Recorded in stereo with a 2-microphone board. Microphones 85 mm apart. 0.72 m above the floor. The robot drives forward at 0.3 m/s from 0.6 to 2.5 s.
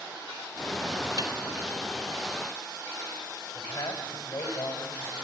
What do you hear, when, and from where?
1.2 s a snare drum: 70° right (ahead or behind), 2.5 m
3.5 s a man speaking: 60° left (ahead or behind), 3.5 m